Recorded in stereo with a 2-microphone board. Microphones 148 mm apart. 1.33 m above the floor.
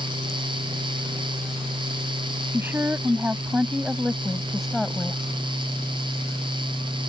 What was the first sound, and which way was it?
A woman speaking, 15° right (ahead or behind).